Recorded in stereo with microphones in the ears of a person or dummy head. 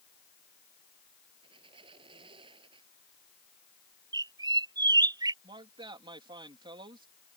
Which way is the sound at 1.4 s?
30° right (ahead or behind).